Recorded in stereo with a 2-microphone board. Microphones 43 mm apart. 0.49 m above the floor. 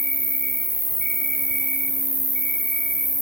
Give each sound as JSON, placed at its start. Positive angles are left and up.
{"t": 0.0, "sound": "an insect", "side_deg": 40, "distance_m": 4.5}